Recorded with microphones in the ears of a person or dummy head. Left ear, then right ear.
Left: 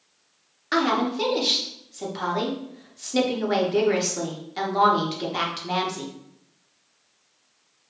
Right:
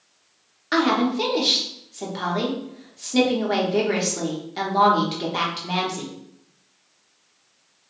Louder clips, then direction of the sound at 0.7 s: Right 2 dB; 10° left (ahead or behind).